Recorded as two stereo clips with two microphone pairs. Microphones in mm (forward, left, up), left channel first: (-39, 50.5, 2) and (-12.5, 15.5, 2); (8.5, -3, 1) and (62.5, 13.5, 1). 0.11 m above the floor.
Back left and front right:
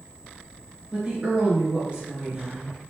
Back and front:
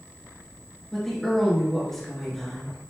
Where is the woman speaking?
85° right, 1.4 m.